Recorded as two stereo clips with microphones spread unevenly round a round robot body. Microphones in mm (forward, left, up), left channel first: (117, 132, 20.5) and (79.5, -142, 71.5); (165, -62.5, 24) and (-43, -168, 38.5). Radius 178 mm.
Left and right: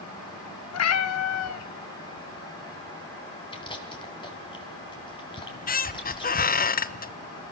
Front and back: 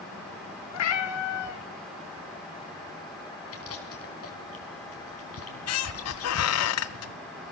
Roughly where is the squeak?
Ahead.